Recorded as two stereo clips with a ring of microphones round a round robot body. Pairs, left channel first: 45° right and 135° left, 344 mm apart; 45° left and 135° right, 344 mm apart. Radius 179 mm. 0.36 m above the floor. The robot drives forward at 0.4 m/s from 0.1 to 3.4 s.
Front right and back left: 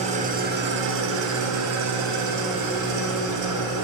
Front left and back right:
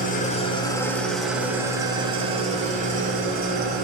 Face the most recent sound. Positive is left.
turn(degrees=165)